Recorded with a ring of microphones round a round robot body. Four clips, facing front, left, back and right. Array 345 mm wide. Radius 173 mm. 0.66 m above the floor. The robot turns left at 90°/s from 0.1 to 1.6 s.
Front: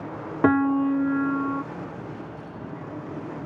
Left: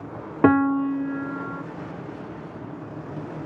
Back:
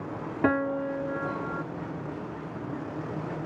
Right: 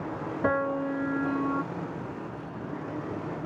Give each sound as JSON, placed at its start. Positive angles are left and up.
{"t": 0.4, "sound": "a piano", "azimuth_deg": 70}